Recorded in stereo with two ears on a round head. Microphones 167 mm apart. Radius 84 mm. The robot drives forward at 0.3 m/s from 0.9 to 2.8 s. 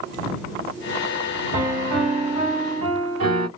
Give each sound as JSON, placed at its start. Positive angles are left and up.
{"t": 1.5, "sound": "a piano", "side_deg": -35, "distance_m": 1.5}